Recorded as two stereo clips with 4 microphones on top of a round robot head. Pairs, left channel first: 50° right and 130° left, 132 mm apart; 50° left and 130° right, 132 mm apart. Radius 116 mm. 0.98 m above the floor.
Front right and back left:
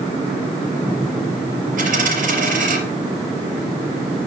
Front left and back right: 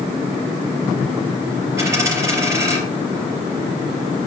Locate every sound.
1.8 s a dropped coin: 160° left, 3.5 m